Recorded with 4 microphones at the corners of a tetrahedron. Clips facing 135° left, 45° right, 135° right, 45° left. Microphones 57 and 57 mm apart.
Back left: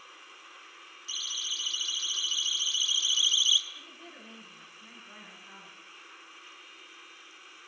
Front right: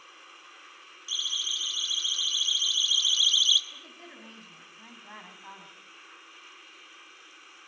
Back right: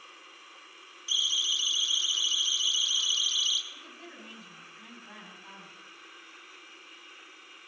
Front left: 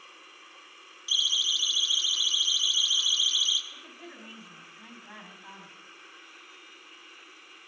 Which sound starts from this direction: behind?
A siren, at 1.1 s.